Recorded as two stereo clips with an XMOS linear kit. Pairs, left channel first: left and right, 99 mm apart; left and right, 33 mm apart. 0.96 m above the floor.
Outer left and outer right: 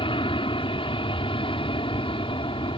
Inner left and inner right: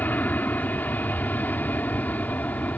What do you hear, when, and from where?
0.0 s an aircraft: 60° left (ahead or behind)